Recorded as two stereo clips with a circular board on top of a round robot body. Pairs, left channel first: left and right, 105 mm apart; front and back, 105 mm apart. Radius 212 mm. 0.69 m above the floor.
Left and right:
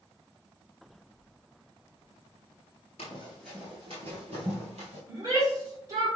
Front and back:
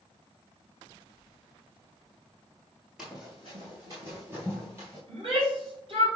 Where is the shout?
145° right, 2.5 m.